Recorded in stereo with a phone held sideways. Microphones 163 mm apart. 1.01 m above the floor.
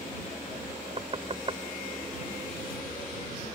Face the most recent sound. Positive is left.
turn(degrees=-40)  # may be behind; listen again after turning